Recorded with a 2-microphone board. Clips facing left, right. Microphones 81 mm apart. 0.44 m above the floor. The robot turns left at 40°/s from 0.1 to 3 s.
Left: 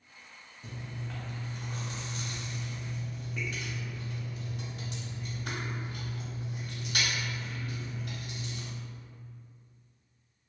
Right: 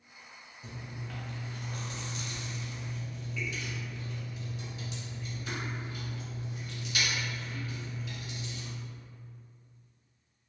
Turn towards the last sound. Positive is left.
turn(degrees=55)  # may be behind; listen again after turning